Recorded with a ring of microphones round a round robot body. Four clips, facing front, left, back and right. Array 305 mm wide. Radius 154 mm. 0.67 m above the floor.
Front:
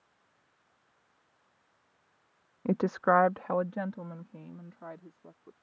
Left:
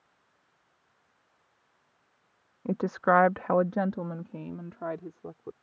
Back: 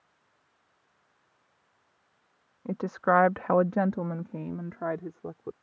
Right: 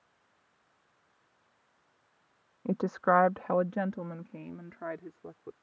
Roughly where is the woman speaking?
Ahead.